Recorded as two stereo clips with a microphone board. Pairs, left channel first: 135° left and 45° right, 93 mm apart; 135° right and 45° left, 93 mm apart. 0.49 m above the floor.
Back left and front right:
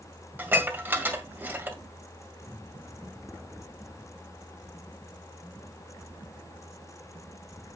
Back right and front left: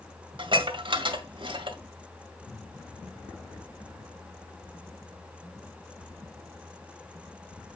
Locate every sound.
0.4 s dishes clattering: 25° left, 1.8 m